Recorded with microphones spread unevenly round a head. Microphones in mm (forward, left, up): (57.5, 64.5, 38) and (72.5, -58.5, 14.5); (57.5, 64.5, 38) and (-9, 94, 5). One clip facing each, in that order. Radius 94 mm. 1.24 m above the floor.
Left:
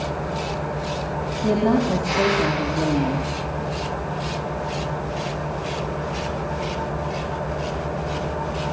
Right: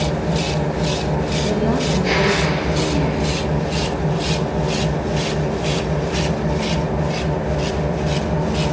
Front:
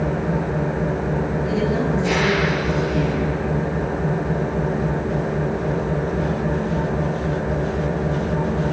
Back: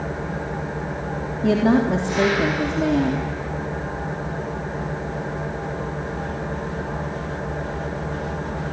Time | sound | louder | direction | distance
0.0 | an engine running | right 6 dB, front 6 dB | 60° right | 6.5 m
1.4 | a woman speaking | left 3 dB, back 7 dB | 170° left | 3.5 m